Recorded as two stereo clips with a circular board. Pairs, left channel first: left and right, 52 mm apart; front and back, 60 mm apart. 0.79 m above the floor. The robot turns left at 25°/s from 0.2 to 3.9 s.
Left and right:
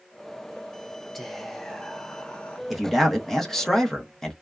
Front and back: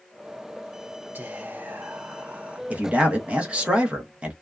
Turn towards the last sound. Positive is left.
turn(degrees=145)